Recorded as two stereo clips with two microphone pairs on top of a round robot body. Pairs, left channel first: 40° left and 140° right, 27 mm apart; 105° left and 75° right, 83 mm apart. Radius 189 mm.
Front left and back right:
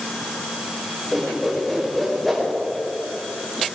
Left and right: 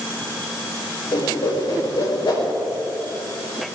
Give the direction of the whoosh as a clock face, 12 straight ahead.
8 o'clock.